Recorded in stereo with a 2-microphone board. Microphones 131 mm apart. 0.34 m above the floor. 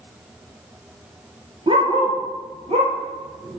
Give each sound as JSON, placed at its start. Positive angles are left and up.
{"t": 1.7, "sound": "a dog barking", "side_deg": -40, "distance_m": 2.0}